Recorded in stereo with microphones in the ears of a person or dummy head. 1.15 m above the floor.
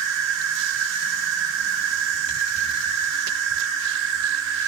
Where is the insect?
60° right (ahead or behind), 2.5 m.